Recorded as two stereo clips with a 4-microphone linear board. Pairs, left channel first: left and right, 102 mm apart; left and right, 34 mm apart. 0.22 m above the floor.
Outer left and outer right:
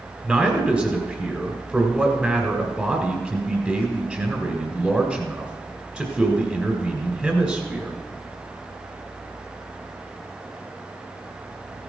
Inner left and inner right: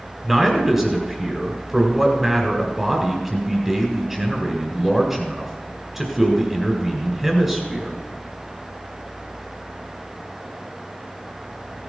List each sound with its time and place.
0.2 s a man speaking: 5° right (ahead or behind), 1.9 m